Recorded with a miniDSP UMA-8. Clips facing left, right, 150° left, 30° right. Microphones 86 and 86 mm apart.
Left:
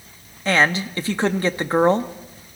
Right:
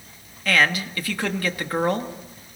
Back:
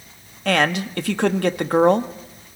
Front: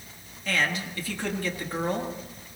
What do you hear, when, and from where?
0.5 s a man speaking: 150° left, 1.1 m